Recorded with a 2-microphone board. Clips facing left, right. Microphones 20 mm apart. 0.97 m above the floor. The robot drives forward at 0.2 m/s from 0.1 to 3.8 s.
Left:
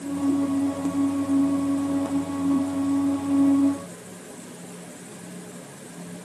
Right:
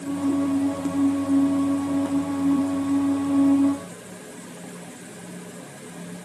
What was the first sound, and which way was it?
Only background noise.